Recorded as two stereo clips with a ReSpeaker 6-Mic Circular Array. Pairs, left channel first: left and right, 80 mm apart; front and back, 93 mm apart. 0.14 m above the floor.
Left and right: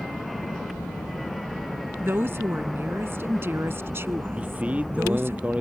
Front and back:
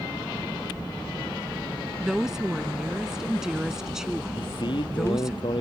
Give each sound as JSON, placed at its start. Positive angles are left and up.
{"t": 2.0, "sound": "a woman speaking", "azimuth_deg": -100}
{"t": 4.4, "sound": "a man speaking", "azimuth_deg": -20}